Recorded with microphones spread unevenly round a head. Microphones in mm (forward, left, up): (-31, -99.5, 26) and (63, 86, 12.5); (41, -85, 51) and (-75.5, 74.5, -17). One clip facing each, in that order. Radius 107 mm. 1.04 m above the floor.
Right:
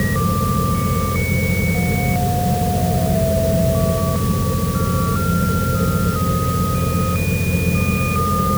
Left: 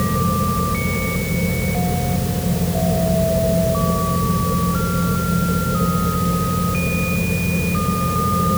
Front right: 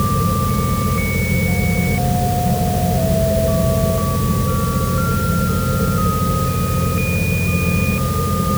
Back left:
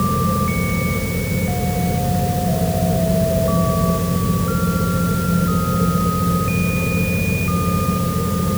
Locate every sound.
Only background noise.